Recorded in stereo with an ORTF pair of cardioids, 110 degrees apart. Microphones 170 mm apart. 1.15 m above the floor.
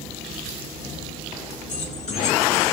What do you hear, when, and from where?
1.7 s keys jangling: 50° left, 1.8 m; by 2.7 s 40° left, 2.5 m